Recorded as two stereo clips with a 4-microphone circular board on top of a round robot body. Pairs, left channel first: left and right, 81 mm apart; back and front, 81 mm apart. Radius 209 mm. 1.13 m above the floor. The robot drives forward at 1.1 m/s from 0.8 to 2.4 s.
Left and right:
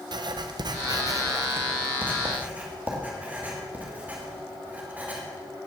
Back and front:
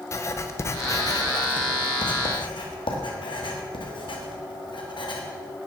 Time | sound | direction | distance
0.1 | writing | 125° right | 0.9 m